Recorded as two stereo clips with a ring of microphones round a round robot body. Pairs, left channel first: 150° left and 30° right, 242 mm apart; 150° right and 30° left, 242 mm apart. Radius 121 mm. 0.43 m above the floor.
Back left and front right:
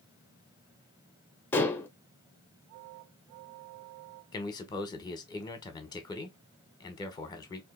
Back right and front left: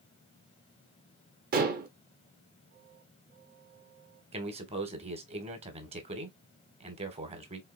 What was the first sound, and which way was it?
Dishes clattering, 70° left.